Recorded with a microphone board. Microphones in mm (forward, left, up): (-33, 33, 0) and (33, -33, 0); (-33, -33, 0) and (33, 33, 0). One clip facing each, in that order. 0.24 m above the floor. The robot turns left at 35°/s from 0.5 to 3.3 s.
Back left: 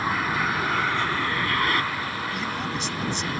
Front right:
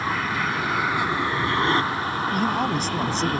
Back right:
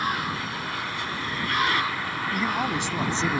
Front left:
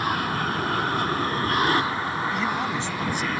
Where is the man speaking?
50° right; by 3.4 s 85° right.